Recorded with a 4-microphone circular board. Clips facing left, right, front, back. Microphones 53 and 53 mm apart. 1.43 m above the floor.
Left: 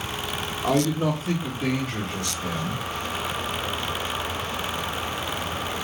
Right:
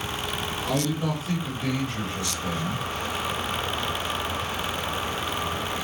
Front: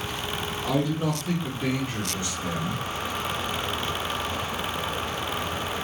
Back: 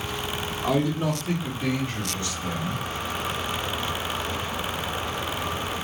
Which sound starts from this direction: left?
A man speaking, at 0.6 s.